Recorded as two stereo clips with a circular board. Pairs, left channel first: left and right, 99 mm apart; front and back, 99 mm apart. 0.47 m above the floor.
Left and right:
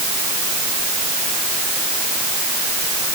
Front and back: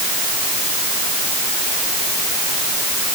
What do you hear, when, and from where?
Only background noise.